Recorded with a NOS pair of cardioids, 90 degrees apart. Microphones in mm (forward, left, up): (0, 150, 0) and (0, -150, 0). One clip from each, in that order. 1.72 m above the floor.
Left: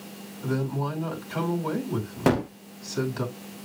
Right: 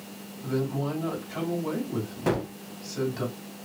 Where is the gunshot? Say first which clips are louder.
Left 4 dB; 45° left, 0.5 m.